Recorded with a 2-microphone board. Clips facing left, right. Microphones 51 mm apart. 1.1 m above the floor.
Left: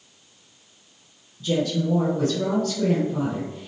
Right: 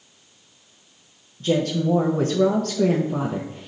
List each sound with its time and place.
1.4 s a woman speaking: 45° right (ahead or behind), 0.5 m